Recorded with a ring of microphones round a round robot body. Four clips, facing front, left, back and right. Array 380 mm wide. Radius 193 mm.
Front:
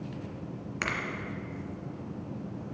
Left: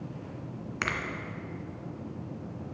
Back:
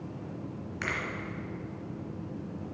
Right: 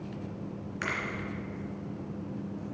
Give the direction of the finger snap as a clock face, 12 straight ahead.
10 o'clock.